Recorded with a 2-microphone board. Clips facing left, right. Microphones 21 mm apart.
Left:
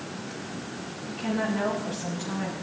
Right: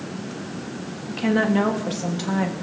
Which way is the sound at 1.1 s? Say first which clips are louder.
Right 8 dB; 80° right.